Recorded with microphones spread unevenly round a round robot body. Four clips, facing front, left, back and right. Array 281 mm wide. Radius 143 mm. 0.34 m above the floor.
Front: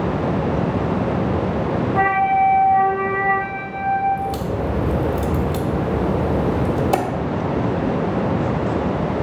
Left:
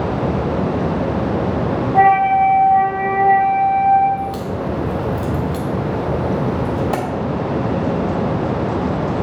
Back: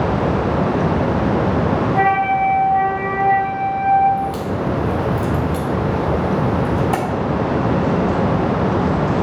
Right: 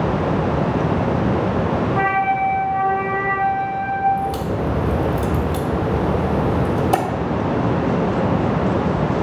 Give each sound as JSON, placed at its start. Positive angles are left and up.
{"t": 1.9, "sound": "a flute", "azimuth_deg": 105, "distance_m": 1.6}
{"t": 4.2, "sound": "a crack", "azimuth_deg": -5, "distance_m": 1.4}